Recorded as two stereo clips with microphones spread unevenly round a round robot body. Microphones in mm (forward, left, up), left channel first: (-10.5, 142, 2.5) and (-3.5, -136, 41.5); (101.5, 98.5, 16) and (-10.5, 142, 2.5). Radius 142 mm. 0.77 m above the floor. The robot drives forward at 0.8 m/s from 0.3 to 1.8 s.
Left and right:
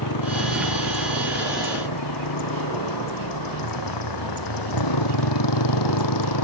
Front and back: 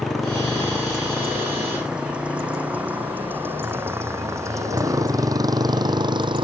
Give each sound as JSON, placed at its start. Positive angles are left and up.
{"t": 0.0, "sound": "a motorcycle", "azimuth_deg": 65}